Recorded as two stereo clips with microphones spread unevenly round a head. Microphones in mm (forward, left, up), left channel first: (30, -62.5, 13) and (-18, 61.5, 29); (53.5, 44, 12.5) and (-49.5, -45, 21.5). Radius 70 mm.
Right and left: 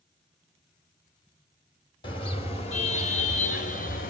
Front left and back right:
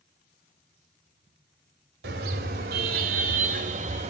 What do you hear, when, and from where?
2.0 s a car horn: 125° right, 2.5 m; by 4.1 s 95° right, 1.8 m